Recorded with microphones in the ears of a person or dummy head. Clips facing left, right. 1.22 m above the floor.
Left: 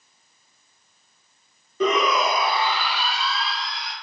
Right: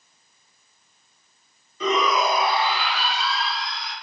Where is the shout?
50° left (ahead or behind), 0.9 m; by 3.9 s 45° left (ahead or behind), 0.9 m.